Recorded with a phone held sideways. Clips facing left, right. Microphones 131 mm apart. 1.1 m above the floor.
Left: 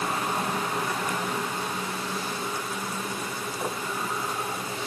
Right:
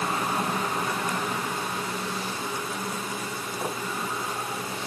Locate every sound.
Only background noise.